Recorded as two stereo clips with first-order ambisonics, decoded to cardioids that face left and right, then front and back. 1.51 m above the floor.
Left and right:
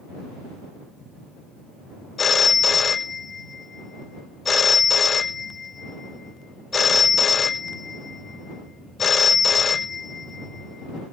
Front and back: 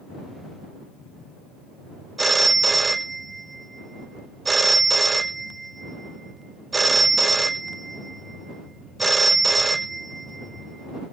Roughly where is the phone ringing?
Behind left.